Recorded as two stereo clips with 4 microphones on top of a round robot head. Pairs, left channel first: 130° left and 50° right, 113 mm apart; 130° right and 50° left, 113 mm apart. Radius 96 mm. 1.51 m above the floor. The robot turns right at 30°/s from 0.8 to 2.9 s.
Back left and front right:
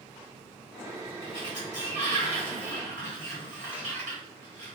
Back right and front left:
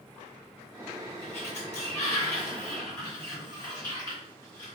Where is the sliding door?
120° right, 1.7 m; by 4.7 s 70° right, 1.7 m.